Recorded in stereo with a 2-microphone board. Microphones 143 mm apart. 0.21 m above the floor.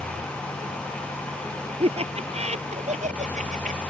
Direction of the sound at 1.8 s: 45° right (ahead or behind).